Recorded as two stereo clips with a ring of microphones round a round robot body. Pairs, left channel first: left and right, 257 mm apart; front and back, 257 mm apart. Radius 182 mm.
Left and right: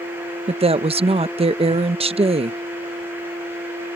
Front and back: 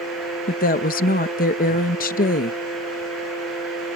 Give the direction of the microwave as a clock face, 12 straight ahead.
I don't hear a microwave.